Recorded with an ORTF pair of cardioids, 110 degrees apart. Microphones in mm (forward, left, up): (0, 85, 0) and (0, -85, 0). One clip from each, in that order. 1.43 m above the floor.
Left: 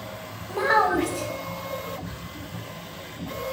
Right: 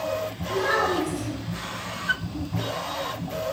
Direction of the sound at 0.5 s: 40° left.